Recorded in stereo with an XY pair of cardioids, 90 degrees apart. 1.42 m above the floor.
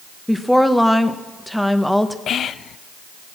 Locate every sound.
0.3 s a woman speaking: 5° left, 1.3 m
2.3 s whispering: 70° left, 0.6 m